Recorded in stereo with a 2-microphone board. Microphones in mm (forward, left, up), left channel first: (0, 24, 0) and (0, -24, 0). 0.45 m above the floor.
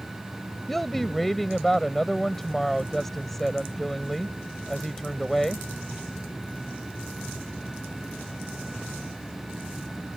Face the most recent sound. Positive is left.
turn(degrees=5)  # may be behind; listen again after turning